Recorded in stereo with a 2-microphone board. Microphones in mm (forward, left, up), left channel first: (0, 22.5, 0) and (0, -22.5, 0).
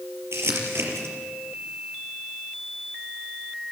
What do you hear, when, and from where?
0.3 s crumpling: 70° right (ahead or behind), 5 m